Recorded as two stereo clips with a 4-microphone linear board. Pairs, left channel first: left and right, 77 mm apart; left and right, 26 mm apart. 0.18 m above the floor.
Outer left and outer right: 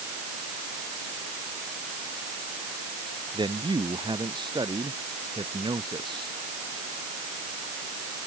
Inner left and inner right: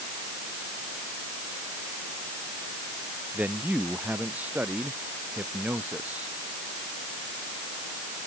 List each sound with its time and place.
3.3 s a man speaking: 85° right